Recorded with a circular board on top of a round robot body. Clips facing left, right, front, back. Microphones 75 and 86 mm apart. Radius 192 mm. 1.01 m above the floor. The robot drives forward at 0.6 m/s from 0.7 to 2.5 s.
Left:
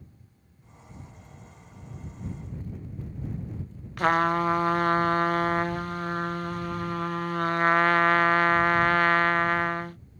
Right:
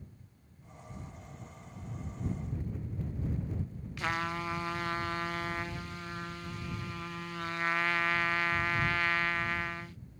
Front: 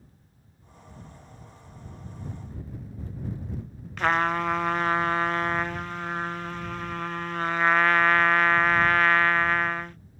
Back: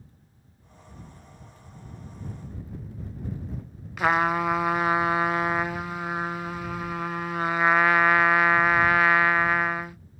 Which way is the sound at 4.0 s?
100° left.